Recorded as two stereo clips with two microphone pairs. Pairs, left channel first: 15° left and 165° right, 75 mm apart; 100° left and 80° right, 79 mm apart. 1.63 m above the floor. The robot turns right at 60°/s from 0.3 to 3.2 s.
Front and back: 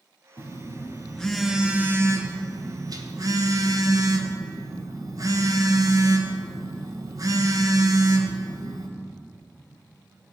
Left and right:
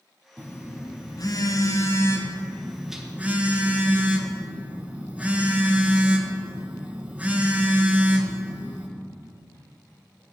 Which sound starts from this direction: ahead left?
A phone buzzing, at 0.4 s.